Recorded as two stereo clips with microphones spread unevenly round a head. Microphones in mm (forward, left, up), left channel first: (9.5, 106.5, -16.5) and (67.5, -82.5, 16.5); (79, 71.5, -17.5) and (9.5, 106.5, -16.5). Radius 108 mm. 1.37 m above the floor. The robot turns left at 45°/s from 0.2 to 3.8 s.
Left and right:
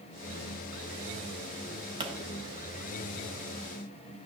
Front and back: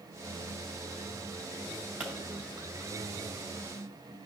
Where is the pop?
130° right, 0.6 m; by 2.1 s 140° right, 0.6 m.